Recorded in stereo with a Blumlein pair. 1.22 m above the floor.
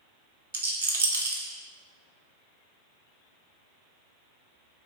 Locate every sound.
0.5 s a rattle: 65° right, 0.6 m